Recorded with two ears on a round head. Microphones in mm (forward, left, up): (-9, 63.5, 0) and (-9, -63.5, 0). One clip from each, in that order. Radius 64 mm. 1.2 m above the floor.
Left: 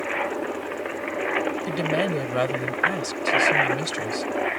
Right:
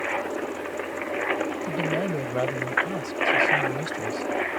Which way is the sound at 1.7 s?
50° left (ahead or behind).